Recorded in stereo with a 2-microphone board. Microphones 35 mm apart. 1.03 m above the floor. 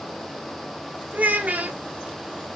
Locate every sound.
1.1 s a child speaking: 45° right (ahead or behind), 0.6 m